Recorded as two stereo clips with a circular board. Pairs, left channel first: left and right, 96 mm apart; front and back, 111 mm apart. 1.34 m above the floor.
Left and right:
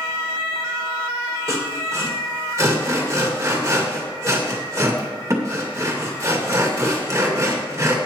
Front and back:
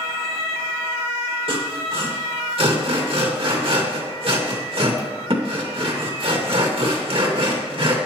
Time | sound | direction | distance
1.5 | sawing | 150° right | 2 m